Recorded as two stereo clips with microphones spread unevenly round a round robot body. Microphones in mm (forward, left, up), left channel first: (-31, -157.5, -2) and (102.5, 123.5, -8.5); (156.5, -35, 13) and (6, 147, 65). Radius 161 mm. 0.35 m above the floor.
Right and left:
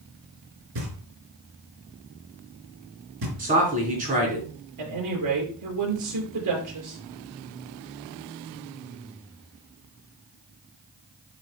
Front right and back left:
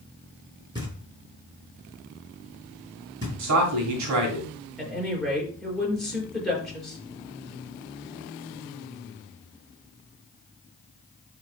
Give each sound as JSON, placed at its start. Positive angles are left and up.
{"t": 0.8, "sound": "knocking", "azimuth_deg": 55, "distance_m": 4.5}
{"t": 3.4, "sound": "a man speaking", "azimuth_deg": 135, "distance_m": 2.5}
{"t": 4.8, "sound": "a woman speaking", "azimuth_deg": 40, "distance_m": 5.5}